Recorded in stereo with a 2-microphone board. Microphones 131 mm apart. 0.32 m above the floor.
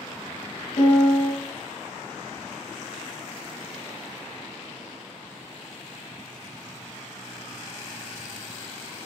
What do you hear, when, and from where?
0.8 s a piano: 70° left (ahead or behind), 0.9 m